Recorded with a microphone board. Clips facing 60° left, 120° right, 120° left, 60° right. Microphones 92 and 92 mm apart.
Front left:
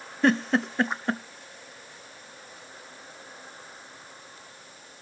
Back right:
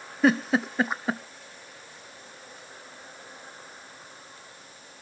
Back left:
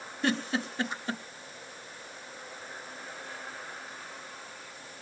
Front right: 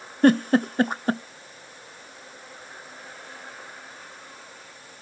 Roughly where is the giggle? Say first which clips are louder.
Back right 1 dB, front right 12 dB; ahead right.